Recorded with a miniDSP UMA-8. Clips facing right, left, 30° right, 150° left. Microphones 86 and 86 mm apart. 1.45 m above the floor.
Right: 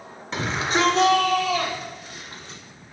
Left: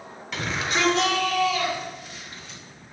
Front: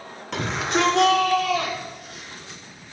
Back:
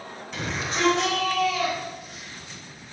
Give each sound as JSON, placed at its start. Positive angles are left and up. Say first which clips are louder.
{"t": 0.3, "sound": "a shout", "louder": "right 3 dB, front 6 dB", "azimuth_deg": -30, "distance_m": 4.5}